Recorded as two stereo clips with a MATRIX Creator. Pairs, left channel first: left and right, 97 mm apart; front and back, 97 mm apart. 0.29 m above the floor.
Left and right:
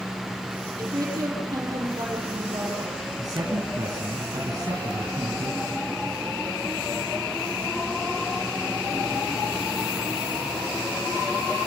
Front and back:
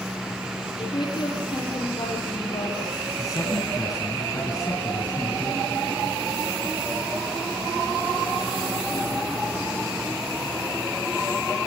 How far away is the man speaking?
About 2.5 m.